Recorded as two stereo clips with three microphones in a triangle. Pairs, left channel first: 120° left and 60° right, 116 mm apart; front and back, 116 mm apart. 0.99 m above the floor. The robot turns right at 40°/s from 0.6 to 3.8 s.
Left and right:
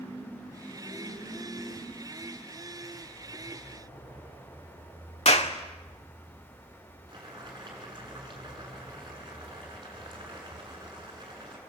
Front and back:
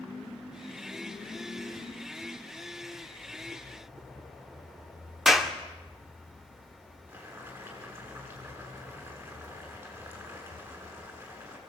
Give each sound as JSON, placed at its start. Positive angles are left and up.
{"t": 5.2, "sound": "a clap", "azimuth_deg": 90, "distance_m": 2.5}
{"t": 7.1, "sound": "boiling", "azimuth_deg": -110, "distance_m": 8.0}